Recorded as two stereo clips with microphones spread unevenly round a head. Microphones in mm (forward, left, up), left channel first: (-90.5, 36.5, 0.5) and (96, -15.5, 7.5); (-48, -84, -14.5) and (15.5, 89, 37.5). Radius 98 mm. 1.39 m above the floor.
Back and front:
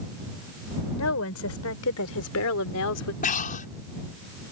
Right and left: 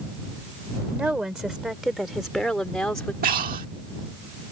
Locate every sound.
0.9 s a woman speaking: 155° left; by 3.1 s 165° left
3.2 s breathing: 115° left